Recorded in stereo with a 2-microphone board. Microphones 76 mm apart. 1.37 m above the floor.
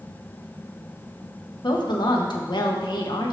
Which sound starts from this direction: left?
A woman speaking, at 1.6 s.